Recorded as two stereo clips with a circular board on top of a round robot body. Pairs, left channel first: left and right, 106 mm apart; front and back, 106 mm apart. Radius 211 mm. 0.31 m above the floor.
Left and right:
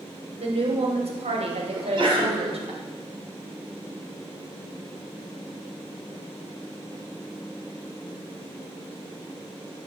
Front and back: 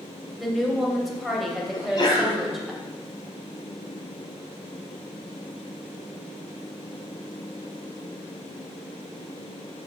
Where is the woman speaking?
90° right, 3 m.